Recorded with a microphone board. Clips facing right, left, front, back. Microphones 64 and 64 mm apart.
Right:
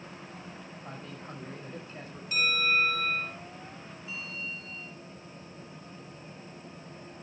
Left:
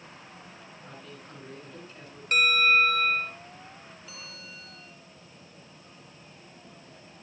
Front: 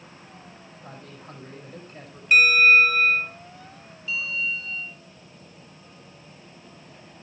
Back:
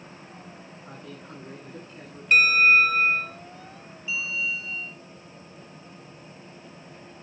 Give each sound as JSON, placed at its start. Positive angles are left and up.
{"t": 0.8, "sound": "a man speaking", "azimuth_deg": -35, "distance_m": 8.5}
{"t": 2.3, "sound": "a bell", "azimuth_deg": 85, "distance_m": 4.5}
{"t": 4.1, "sound": "a bell", "azimuth_deg": 105, "distance_m": 2.0}